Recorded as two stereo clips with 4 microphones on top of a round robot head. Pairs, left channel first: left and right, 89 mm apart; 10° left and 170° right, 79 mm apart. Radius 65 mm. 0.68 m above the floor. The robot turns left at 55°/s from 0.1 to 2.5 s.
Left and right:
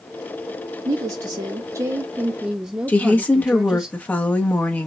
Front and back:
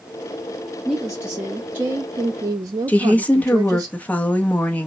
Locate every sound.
0.8 s a woman speaking: 75° right, 0.7 m; by 3.9 s 165° right, 0.7 m
2.9 s a woman speaking: 45° left, 0.9 m